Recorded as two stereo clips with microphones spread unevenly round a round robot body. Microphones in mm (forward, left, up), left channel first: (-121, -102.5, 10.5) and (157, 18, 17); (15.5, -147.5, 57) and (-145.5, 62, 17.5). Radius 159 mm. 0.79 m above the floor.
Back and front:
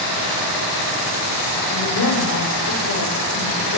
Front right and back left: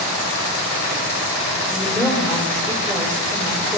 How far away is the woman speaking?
About 4 m.